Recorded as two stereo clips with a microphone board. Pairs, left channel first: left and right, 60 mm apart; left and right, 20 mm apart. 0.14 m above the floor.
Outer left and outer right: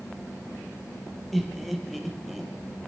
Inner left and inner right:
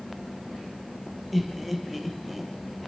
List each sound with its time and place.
1.3 s laughter: centre (ahead or behind), 4 m